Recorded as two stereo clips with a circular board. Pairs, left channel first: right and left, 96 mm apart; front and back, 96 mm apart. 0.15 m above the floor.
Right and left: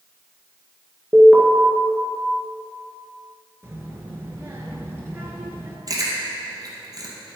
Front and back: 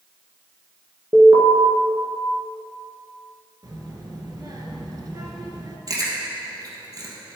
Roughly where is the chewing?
Behind left.